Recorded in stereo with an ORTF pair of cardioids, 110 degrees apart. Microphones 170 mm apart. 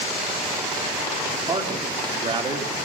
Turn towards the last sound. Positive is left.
turn(degrees=-35)